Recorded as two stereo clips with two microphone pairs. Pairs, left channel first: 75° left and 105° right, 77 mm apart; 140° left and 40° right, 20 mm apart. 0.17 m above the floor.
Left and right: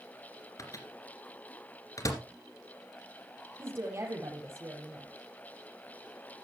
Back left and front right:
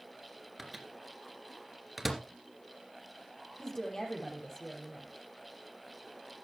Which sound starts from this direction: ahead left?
A microwave, at 0.6 s.